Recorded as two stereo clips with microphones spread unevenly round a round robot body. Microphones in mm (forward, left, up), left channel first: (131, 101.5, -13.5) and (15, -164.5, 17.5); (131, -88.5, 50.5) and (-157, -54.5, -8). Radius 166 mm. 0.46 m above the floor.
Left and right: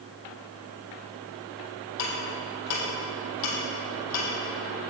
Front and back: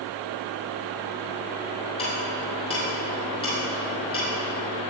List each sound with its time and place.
2.0 s ticking: 70° left, 3.5 m